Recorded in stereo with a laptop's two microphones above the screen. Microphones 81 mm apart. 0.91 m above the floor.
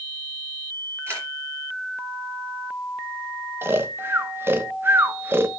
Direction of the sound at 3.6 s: 30° right (ahead or behind).